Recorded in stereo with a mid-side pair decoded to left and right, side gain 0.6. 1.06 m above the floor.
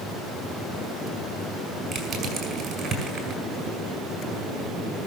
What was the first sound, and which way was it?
Crushing, 25° right.